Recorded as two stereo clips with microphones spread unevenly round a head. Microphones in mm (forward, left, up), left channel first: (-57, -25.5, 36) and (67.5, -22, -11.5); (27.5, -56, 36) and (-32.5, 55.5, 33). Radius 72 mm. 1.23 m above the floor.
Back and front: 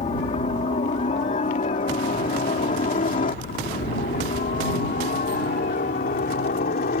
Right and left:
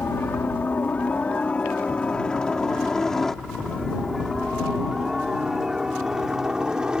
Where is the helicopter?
140° right; by 7.0 s 160° right.